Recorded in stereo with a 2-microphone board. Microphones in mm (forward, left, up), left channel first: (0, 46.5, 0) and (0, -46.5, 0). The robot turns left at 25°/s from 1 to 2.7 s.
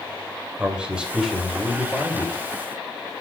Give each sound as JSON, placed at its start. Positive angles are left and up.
{"t": 0.6, "sound": "a man speaking", "azimuth_deg": -170, "distance_m": 2.5}